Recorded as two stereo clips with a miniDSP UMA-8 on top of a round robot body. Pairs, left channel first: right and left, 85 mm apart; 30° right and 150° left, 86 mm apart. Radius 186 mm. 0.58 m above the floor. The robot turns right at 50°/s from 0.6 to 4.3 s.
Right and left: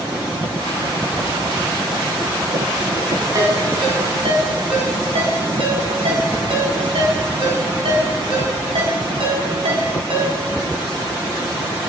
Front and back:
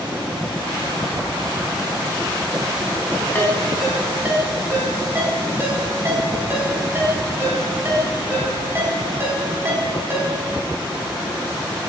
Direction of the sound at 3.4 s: 40° left.